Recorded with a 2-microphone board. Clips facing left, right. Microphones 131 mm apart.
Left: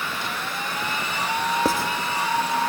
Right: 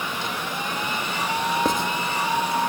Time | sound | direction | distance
1.6 | writing | 5° left (ahead or behind) | 1.6 m